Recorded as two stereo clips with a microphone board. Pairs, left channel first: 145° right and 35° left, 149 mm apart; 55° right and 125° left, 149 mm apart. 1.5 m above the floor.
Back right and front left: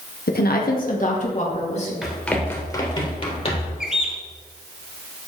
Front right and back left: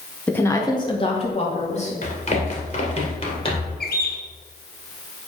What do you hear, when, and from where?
0.3 s a woman speaking: 140° right, 1.0 m; by 1.9 s 100° right, 2.5 m
2.0 s running footsteps: 55° right, 2.0 m; by 3.8 s 110° right, 3 m
3.8 s a bird: 55° right, 1.0 m